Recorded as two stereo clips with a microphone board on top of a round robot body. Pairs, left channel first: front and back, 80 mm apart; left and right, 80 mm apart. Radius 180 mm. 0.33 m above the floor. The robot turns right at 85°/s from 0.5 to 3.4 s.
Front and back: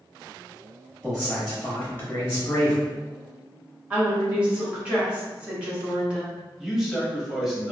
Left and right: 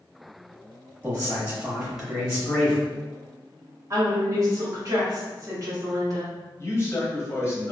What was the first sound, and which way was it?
A man speaking, 100° right.